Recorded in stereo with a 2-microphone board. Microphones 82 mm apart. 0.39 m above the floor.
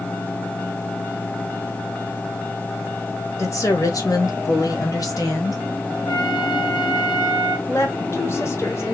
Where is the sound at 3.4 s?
45° left (ahead or behind), 1.6 m.